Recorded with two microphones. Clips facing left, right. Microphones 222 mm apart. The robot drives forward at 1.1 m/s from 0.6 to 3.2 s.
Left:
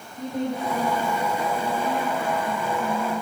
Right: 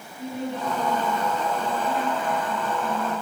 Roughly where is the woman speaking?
Left.